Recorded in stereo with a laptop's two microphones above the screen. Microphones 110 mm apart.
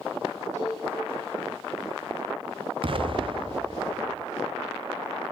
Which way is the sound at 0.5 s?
85° right.